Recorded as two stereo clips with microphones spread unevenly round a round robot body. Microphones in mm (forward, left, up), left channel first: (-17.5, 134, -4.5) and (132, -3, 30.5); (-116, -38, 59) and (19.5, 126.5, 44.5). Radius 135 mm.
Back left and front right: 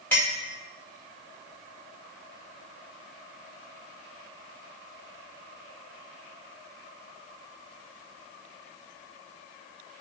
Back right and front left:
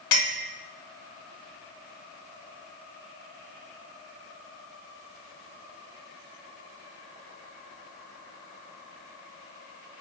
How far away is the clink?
About 2 m.